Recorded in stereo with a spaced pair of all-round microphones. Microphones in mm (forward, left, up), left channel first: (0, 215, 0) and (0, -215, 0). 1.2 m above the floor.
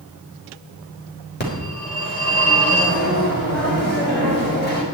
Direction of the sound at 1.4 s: 25° left (ahead or behind).